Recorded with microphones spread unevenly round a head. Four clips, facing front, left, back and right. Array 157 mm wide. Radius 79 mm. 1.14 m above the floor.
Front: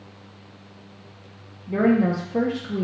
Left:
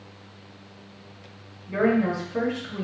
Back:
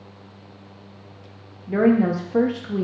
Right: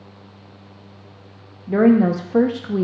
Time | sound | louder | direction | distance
1.7 | a woman speaking | right 8 dB, back 2 dB | 110° right | 0.6 m